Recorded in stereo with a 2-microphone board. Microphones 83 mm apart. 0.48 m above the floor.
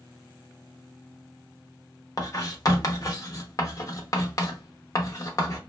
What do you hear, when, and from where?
2.2 s writing: 45° left (ahead or behind), 0.6 m